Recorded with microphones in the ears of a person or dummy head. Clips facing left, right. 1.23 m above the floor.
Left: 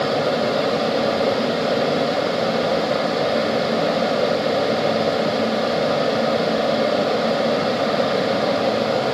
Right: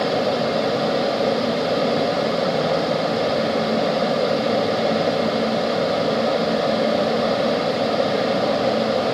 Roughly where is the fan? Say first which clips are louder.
Even; centre.